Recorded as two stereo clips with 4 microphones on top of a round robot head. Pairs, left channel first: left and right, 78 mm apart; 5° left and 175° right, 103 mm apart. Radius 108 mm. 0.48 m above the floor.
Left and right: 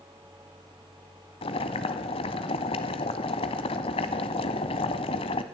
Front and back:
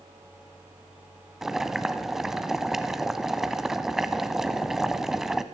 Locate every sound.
1.4 s boiling: 95° left, 0.6 m